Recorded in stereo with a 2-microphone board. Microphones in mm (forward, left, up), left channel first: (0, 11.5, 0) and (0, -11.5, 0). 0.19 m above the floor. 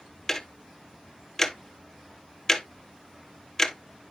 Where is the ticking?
15° left (ahead or behind), 0.9 m.